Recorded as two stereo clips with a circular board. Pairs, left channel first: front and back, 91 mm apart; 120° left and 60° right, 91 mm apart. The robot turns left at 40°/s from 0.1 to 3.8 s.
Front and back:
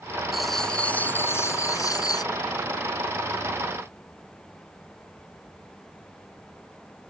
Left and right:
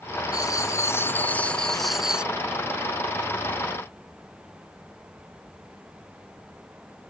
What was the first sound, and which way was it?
Writing, 95° left.